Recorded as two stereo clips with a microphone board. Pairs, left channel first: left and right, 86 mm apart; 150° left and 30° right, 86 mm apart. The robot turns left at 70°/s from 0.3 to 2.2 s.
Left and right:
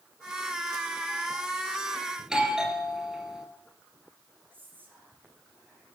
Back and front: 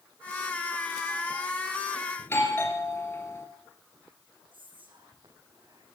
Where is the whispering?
25° right, 5 m.